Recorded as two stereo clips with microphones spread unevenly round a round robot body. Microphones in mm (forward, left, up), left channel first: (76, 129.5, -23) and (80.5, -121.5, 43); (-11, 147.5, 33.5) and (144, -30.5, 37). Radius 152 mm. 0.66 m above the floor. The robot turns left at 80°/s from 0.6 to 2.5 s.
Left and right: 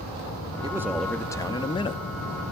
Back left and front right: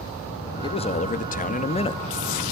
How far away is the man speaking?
About 0.5 m.